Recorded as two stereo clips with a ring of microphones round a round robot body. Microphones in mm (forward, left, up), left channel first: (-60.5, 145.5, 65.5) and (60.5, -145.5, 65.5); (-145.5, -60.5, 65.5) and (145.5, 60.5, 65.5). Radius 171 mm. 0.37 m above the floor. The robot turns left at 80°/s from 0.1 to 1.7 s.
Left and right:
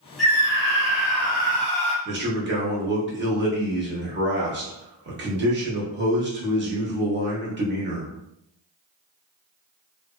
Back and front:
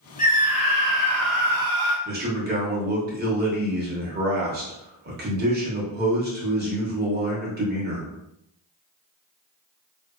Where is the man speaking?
25° right, 1.1 m.